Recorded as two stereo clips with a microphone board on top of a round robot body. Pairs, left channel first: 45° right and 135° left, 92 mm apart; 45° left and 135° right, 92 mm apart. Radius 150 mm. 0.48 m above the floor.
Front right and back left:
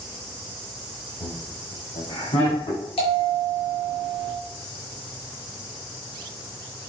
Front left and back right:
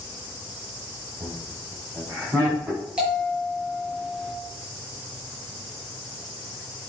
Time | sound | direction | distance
1.2 | laughter | 75° right | 6 m
3.0 | a bell | 55° right | 6.5 m